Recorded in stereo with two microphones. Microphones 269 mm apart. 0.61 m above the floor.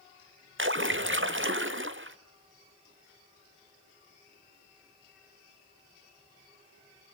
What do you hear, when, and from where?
0.6 s a splash: 50° right (ahead or behind), 1.1 m